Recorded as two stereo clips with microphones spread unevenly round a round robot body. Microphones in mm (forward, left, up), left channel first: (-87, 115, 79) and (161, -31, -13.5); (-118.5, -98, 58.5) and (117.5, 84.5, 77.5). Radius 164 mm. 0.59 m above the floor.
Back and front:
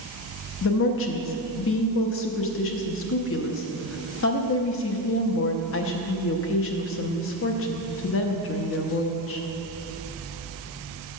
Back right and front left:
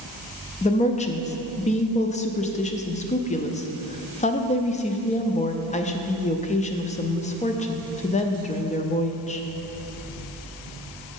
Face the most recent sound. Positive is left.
turn(degrees=-170)